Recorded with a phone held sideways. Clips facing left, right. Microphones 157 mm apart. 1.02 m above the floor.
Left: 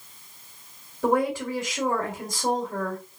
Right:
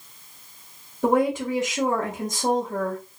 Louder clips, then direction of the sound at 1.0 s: Right 3 dB; 15° right (ahead or behind).